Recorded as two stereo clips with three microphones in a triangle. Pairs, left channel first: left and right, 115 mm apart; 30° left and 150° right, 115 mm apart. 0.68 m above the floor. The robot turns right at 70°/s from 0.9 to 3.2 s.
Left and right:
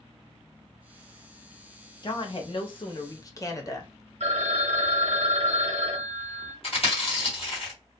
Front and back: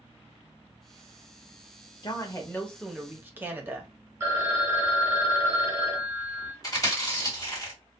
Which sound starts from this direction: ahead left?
A woman speaking, at 2.0 s.